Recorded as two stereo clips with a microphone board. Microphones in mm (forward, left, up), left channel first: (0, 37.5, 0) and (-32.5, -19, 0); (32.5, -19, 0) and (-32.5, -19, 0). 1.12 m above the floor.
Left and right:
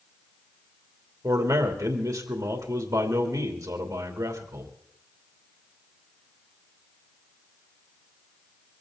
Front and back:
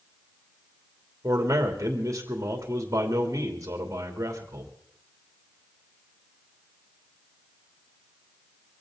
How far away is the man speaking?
About 3 m.